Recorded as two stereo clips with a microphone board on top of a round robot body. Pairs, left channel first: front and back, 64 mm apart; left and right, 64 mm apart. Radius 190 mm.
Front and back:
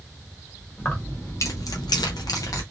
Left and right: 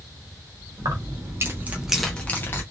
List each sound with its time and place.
0.8 s keys jangling: 60° right, 1.2 m; by 2.6 s 35° left, 0.9 m